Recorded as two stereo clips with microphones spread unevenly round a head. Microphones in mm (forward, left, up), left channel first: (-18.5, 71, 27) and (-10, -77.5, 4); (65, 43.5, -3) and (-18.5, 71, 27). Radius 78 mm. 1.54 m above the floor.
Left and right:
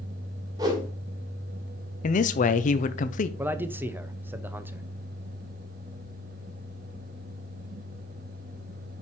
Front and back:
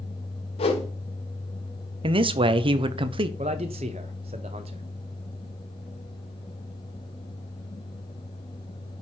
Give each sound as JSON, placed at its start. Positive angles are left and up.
{"t": 0.6, "sound": "a whoosh", "azimuth_deg": -15, "distance_m": 1.5}
{"t": 2.0, "sound": "a man speaking", "azimuth_deg": 135, "distance_m": 0.8}
{"t": 3.4, "sound": "a man speaking", "azimuth_deg": -165, "distance_m": 0.7}